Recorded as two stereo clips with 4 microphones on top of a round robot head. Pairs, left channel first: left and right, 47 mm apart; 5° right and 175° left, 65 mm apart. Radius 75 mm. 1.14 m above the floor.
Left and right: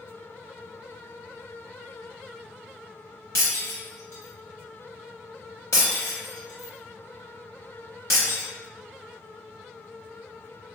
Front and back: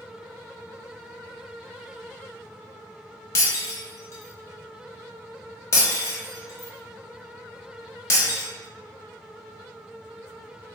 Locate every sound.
3.4 s breaking glass: 40° left, 0.8 m